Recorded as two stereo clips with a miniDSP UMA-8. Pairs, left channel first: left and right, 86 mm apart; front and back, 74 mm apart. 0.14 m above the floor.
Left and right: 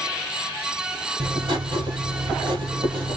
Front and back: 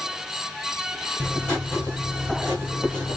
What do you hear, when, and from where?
1.2 s writing: 75° right, 3.5 m